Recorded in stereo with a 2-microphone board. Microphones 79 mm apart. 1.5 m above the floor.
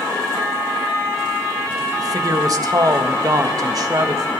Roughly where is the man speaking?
Right.